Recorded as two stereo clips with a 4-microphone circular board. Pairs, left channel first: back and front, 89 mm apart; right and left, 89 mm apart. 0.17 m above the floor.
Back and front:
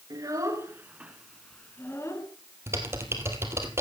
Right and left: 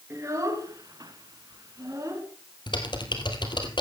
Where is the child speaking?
40° left, 2.0 m; by 2.3 s 140° left, 1.7 m.